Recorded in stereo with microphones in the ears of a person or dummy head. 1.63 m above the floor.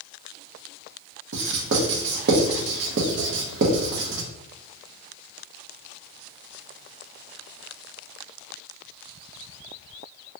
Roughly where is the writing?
Right.